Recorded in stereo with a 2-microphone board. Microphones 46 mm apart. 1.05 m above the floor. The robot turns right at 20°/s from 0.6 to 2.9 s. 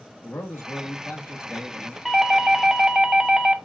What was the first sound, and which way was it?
A man speaking, 80° left.